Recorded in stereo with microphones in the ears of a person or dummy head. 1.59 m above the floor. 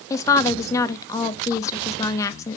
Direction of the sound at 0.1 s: 15° left (ahead or behind).